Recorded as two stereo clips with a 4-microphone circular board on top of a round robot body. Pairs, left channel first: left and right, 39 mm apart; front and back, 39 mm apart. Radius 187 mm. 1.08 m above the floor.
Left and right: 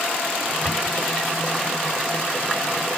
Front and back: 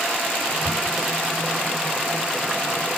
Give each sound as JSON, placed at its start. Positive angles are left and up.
{"t": 0.6, "sound": "a cupboard door", "azimuth_deg": 35, "distance_m": 4.0}